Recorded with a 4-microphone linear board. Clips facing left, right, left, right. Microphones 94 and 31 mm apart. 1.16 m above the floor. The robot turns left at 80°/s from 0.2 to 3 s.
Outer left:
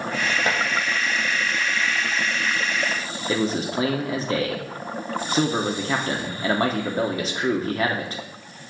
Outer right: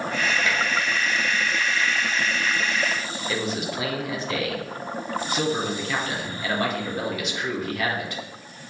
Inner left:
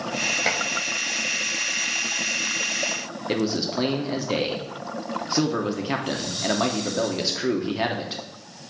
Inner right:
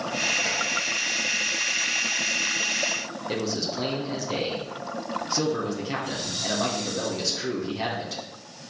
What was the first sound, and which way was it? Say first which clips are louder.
Dishes clattering: outer left 4 dB, inner left 3 dB; 50° left (ahead or behind).